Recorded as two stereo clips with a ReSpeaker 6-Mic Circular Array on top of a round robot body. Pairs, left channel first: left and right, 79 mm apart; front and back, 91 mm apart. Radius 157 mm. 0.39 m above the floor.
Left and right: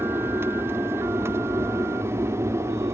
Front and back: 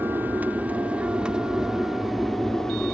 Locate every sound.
0.0 s an aircraft: 125° right; by 2.9 s 75° right